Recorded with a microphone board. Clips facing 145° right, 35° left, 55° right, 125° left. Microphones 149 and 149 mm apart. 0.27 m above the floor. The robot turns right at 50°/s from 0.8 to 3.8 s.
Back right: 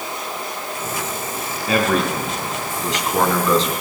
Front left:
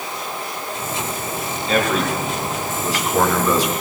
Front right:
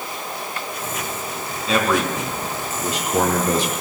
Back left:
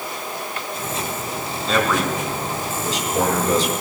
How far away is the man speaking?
About 3.5 m.